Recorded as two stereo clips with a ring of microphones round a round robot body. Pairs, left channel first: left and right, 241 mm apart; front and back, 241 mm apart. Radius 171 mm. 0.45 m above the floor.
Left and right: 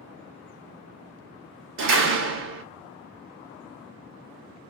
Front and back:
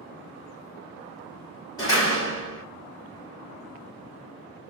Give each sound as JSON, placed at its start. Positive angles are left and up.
{"t": 1.8, "sound": "a door slam", "azimuth_deg": -75, "distance_m": 0.7}